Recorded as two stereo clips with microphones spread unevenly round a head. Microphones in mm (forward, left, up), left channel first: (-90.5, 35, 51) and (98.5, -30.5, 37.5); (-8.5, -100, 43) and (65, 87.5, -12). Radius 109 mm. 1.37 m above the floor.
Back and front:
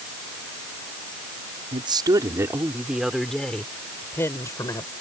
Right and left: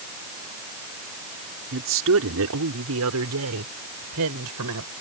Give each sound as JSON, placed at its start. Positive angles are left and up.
{"t": 1.7, "sound": "a woman speaking", "azimuth_deg": 45}